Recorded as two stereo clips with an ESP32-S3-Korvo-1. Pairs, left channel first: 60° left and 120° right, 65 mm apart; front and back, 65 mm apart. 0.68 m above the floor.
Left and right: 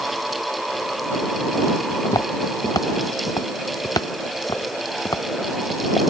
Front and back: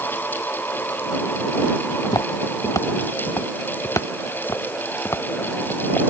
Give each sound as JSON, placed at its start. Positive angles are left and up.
{"t": 2.0, "sound": "footsteps", "azimuth_deg": 30}